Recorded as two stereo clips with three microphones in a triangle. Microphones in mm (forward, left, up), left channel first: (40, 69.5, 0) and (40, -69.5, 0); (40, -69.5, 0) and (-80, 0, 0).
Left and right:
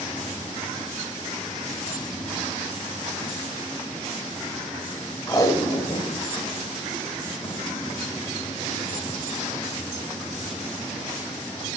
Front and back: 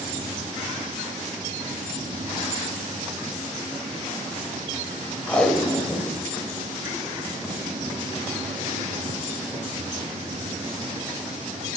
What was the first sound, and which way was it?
Tape being pulled, 45° left.